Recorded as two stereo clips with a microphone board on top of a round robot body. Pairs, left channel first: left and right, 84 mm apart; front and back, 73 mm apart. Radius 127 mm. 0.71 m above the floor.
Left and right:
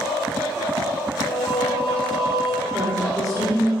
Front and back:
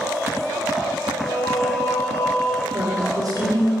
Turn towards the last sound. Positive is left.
turn(degrees=-140)